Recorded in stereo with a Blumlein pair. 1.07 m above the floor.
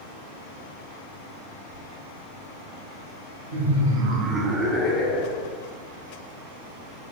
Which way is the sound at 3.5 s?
65° right.